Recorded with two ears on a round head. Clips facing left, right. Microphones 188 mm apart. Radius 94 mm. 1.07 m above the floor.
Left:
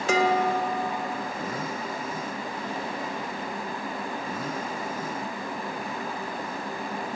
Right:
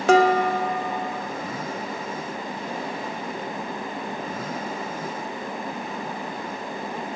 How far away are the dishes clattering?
About 1.6 m.